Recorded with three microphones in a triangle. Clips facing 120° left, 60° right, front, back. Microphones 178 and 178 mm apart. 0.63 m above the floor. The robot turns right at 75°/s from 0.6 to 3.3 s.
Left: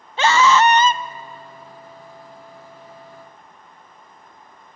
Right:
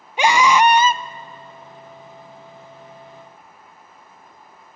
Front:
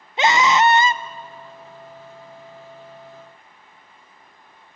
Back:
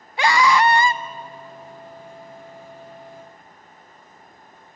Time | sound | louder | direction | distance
0.2 | a scream | even, even | 10° right | 0.5 m